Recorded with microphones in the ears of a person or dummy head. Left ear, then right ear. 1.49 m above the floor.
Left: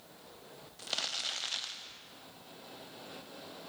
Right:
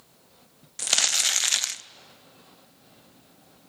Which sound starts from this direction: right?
Crumpling, at 0.8 s.